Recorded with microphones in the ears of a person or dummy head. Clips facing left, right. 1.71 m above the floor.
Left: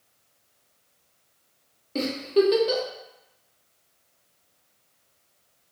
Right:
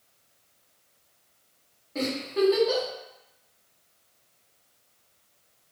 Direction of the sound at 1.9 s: 40° left (ahead or behind).